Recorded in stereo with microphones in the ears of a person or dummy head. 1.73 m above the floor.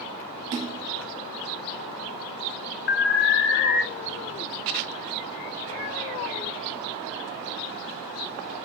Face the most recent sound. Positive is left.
turn(degrees=60)  # may be behind; listen again after turning